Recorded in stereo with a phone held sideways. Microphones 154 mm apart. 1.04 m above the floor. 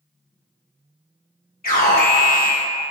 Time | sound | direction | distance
1.6 | an alarm | 70° left (ahead or behind) | 3 m